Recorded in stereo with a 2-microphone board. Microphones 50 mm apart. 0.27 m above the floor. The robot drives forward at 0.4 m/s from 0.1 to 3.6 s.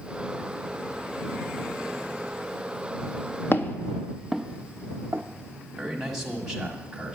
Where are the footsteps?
50° left (ahead or behind), 0.5 m; by 5.2 s 45° right (ahead or behind), 0.8 m.